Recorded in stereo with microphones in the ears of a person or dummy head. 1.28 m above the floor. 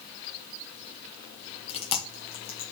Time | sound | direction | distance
1.7 | chewing | 25° left (ahead or behind) | 0.5 m